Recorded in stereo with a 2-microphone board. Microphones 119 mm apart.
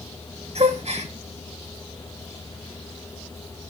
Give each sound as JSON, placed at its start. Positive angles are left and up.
{"t": 0.6, "sound": "a gasp", "side_deg": -60, "distance_m": 3.0}